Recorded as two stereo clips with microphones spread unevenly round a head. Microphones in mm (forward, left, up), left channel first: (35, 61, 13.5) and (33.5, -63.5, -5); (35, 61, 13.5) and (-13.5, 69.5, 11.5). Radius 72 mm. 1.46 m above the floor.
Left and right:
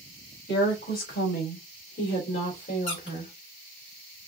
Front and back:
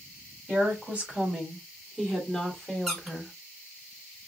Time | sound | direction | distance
0.5 | a woman speaking | 100° left | 3 m
2.9 | a squeak | 85° left | 3 m